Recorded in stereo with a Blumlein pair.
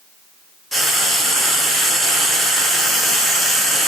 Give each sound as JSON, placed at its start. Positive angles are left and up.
{"t": 0.7, "sound": "frying", "azimuth_deg": 0, "distance_m": 0.7}